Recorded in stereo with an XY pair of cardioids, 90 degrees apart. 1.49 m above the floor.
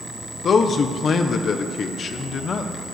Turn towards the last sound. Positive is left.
turn(degrees=55)